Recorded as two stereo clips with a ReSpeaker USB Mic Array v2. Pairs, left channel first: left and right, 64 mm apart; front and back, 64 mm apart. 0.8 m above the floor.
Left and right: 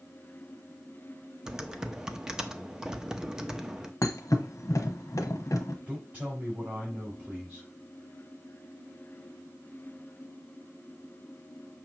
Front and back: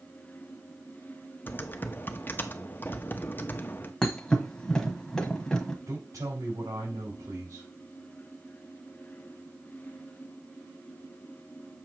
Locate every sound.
1.5 s typing on a keyboard: 15° right, 0.7 m
4.0 s a thud: 80° left, 1.0 m
5.9 s a woman speaking: 160° right, 4 m